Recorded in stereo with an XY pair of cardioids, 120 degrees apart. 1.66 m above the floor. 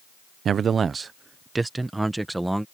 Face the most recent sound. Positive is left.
turn(degrees=-5)